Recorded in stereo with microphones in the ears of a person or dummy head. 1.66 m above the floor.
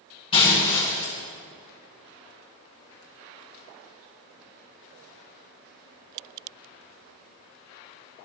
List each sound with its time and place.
0.3 s breaking glass: 35° left (ahead or behind), 8.5 m